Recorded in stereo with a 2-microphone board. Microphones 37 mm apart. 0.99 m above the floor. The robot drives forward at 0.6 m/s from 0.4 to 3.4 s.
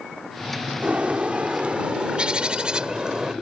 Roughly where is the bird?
Right.